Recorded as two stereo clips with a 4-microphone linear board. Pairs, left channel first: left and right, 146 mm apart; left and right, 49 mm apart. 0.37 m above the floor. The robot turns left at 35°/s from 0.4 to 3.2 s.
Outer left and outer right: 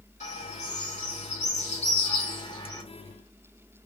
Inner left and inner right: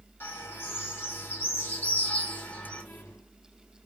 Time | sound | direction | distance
0.2 | a bird | 110° left | 2 m